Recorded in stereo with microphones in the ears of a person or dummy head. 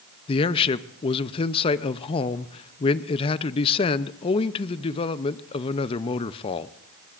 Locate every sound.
0.3 s a man speaking: 30° left (ahead or behind), 0.5 m